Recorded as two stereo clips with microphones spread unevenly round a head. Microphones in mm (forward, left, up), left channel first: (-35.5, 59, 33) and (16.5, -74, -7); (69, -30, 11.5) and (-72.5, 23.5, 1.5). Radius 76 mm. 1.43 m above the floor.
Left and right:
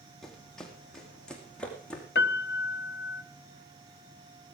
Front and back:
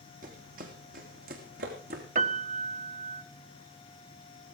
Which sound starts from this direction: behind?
Running footsteps, at 0.2 s.